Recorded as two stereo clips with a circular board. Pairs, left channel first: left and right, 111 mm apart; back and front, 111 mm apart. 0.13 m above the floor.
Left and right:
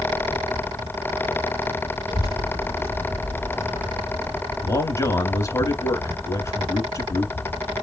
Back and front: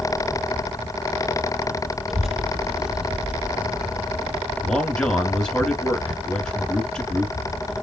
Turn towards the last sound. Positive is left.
turn(degrees=105)